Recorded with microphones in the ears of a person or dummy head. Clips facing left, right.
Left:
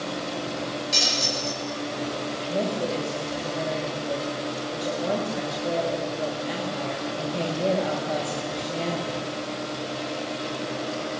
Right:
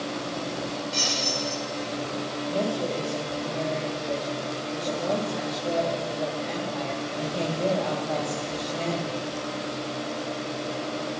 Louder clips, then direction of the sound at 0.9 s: Left 1 dB; 85° left.